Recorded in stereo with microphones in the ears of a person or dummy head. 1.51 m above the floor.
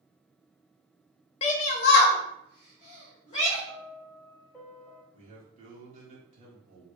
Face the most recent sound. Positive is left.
turn(degrees=-40)  # may be behind; listen again after turning